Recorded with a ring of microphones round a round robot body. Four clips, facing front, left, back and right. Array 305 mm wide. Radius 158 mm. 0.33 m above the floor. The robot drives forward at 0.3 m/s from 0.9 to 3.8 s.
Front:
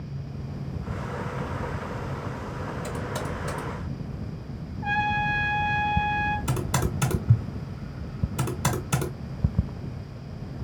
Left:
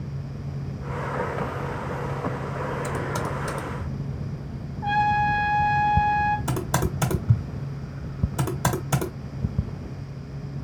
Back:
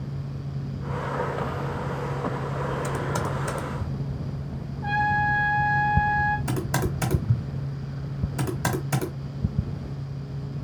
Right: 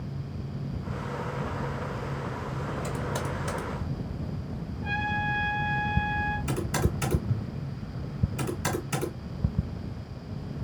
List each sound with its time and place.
2.8 s typing on a keyboard: 145° left, 0.8 m; by 3.9 s 160° left, 0.9 m
4.8 s a trumpet: 95° left, 0.9 m
6.5 s typing on a keyboard: 100° left, 1.3 m